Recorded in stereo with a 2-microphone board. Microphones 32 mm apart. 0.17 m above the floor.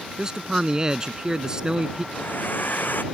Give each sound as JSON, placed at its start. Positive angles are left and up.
{"t": 0.2, "sound": "a man speaking", "side_deg": -20}
{"t": 2.1, "sound": "a hair dryer", "side_deg": 65}